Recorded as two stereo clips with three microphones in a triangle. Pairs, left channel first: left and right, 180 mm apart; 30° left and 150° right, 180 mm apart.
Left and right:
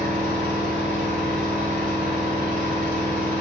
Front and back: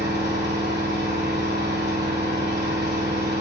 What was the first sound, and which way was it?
An engine running, 130° right.